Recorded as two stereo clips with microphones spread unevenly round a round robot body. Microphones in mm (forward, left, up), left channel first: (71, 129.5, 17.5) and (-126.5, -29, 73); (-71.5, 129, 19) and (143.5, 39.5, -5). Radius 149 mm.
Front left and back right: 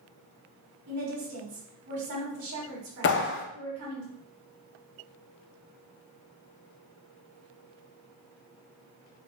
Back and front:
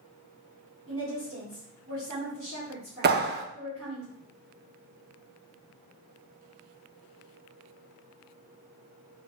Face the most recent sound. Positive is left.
turn(degrees=15)